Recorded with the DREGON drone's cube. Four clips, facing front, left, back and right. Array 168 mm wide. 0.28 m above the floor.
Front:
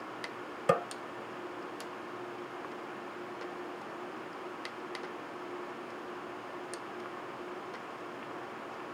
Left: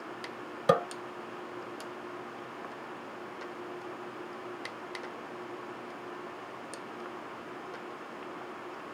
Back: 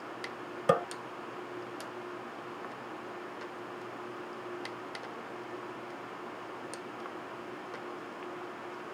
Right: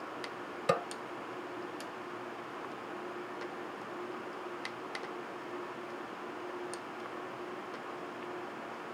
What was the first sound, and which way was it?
A snare drum, 105° left.